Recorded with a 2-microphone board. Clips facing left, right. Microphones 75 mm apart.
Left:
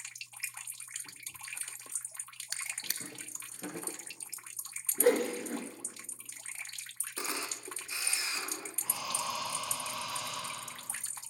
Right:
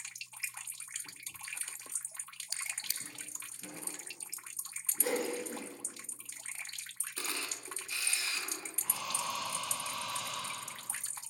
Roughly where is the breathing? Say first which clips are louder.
Left 1 dB; centre.